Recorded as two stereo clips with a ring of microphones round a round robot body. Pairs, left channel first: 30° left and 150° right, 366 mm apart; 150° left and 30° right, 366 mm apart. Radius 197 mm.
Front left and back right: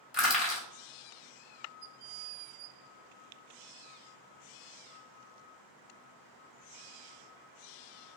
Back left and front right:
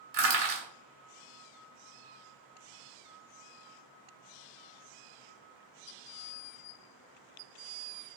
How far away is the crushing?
About 1.5 m.